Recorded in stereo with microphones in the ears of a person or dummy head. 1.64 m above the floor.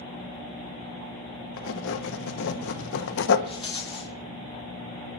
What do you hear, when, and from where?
1.6 s writing: 65° left (ahead or behind), 0.9 m
3.5 s a rattle: 30° left (ahead or behind), 1.5 m